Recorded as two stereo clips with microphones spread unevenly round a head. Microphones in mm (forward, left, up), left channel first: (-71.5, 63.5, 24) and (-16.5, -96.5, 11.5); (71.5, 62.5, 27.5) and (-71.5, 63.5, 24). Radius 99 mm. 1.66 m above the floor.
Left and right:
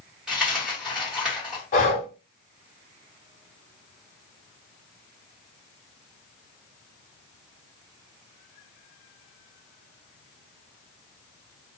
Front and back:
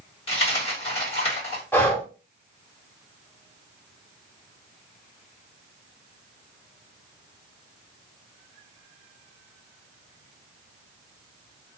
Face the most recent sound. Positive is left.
turn(degrees=70)